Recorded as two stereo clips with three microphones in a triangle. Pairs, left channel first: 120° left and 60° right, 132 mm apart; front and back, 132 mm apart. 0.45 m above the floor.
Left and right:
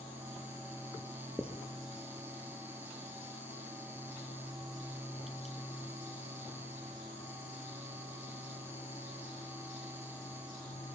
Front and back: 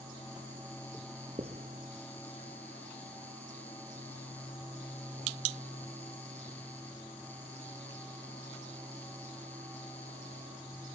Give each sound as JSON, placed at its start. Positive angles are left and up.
{"t": 1.4, "sound": "writing", "azimuth_deg": -140, "distance_m": 2.0}